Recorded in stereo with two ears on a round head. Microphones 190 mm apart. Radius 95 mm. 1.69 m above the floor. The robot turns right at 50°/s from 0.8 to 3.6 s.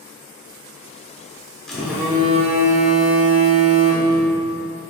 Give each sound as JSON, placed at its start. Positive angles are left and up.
{"t": 1.7, "sound": "a phone buzzing", "azimuth_deg": 175, "distance_m": 0.6}